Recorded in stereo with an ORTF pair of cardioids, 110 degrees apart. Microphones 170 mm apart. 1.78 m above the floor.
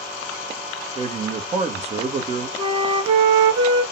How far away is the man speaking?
About 1.0 m.